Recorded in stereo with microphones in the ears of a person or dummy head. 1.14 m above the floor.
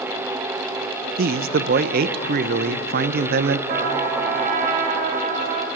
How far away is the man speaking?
About 0.7 m.